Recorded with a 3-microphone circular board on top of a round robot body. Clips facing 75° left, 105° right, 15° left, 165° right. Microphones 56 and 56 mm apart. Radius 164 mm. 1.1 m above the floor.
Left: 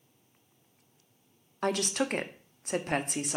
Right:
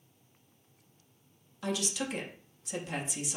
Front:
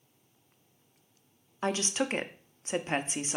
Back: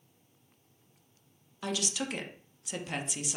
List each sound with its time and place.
1.6 s a woman speaking: 60° left, 0.7 m